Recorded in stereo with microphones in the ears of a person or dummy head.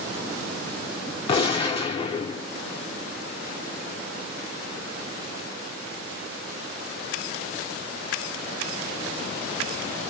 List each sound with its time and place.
1.3 s a gunshot: 30° left (ahead or behind), 0.6 m